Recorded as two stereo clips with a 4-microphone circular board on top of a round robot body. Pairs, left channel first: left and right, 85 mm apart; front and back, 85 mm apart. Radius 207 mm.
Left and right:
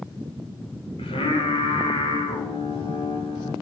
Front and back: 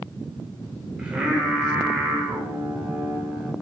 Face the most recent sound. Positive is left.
turn(degrees=100)